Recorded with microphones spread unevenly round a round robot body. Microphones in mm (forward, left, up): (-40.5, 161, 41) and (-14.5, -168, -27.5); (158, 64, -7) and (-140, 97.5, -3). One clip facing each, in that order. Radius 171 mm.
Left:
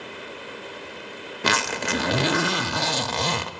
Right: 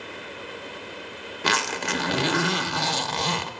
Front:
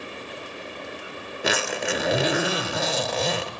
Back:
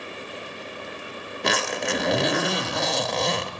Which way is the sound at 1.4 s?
80° left.